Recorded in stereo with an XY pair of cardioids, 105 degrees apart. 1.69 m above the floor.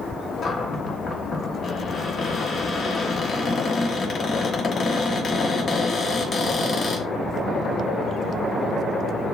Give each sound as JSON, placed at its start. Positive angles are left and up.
{"t": 0.4, "sound": "a cupboard door", "azimuth_deg": 45, "distance_m": 1.4}